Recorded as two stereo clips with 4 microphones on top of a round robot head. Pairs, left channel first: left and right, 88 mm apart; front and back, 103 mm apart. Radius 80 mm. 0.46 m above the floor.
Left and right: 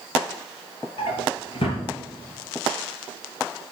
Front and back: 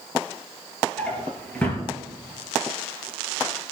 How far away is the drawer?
About 2.5 m.